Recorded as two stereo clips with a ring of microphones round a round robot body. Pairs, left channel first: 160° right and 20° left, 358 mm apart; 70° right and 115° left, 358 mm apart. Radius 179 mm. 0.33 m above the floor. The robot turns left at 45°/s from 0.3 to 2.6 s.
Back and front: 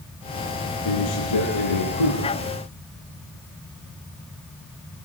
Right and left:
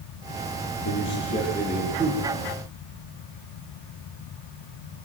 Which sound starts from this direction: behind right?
A man speaking, at 0.8 s.